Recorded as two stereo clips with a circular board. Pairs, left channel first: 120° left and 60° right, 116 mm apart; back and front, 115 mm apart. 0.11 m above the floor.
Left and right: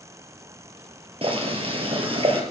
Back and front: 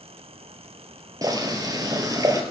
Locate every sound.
1.2 s boiling: 50° right, 2.5 m